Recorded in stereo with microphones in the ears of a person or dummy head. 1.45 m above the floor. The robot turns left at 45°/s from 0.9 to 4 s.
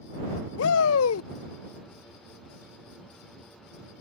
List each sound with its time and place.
0.6 s a shout: 80° left